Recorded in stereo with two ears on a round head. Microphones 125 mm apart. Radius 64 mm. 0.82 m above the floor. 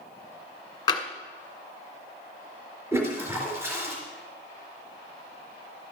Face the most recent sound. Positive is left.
turn(degrees=-20)  # may be behind; listen again after turning